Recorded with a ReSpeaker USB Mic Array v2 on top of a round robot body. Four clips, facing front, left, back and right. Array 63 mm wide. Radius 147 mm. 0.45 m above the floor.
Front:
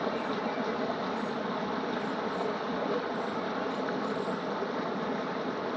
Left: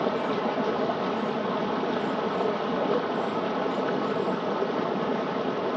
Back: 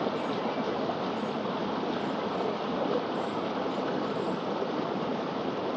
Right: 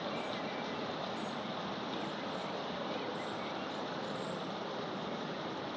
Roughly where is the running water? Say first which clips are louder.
Left 12 dB, back 1 dB; behind left.